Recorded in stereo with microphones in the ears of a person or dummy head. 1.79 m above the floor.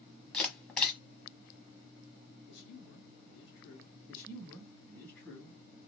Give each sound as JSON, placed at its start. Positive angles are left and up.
{"t": 0.3, "sound": "a camera shutter", "side_deg": 0, "distance_m": 0.9}
{"t": 2.5, "sound": "a man speaking", "side_deg": 65, "distance_m": 1.2}
{"t": 4.1, "sound": "a man speaking", "side_deg": 10, "distance_m": 1.5}